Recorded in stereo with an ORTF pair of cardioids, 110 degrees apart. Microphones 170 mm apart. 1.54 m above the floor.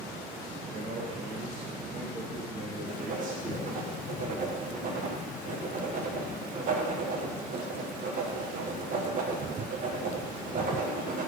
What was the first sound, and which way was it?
A man speaking, 70° right.